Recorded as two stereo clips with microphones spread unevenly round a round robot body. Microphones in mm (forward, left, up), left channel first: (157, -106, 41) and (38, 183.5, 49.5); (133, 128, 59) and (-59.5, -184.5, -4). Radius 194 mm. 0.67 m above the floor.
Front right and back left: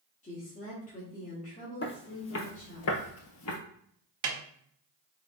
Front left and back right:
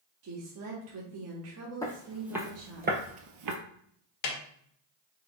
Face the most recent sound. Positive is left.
turn(degrees=85)